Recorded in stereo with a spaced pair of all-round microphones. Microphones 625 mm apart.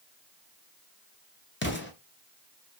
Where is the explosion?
20° left (ahead or behind), 0.6 m.